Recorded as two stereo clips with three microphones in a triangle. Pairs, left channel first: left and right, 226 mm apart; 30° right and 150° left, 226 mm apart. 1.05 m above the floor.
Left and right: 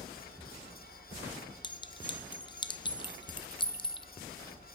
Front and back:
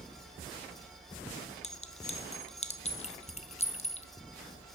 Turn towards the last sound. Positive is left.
turn(degrees=25)